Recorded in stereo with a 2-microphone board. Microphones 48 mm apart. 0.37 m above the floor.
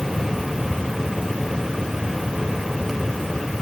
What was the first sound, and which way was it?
Only background noise.